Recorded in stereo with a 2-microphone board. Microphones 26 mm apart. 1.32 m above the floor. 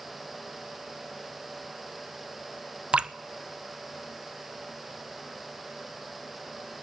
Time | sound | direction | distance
2.9 | dripping | 45° right (ahead or behind) | 0.8 m